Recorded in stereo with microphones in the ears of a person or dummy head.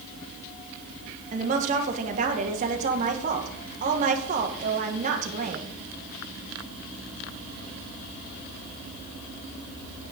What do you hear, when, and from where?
1.3 s a woman speaking: 40° right (ahead or behind), 1.6 m